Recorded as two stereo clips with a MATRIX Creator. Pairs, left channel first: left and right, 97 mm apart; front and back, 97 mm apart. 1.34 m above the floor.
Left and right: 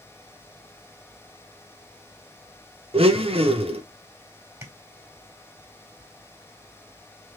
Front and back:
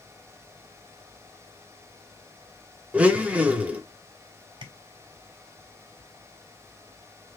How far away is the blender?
About 0.9 m.